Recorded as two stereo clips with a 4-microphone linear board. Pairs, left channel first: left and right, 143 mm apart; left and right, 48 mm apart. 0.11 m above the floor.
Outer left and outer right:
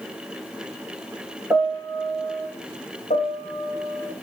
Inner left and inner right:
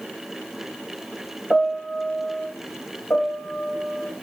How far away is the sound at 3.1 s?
About 5 m.